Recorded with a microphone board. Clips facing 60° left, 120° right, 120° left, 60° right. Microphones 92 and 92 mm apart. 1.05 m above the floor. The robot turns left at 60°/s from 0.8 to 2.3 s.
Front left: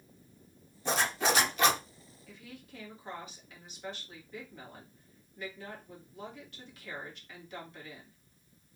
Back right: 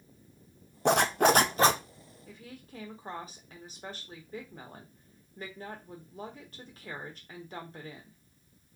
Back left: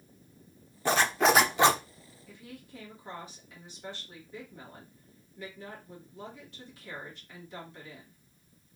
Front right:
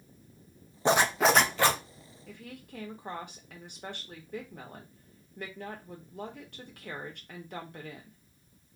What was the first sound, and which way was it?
A zipper, 125° right.